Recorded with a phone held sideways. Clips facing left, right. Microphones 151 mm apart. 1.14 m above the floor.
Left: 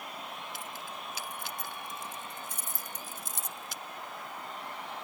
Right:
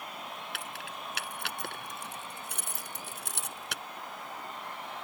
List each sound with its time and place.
0.5 s keys jangling: 75° right (ahead or behind)